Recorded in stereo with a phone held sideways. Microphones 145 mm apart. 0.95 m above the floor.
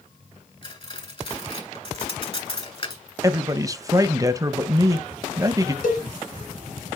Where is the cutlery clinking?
40° left (ahead or behind), 2.5 m.